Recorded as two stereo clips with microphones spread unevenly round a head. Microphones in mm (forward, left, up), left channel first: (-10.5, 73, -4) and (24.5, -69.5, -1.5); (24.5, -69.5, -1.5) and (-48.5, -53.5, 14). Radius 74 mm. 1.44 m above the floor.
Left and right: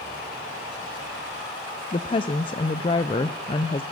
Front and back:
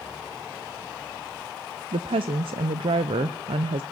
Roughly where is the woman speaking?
Behind.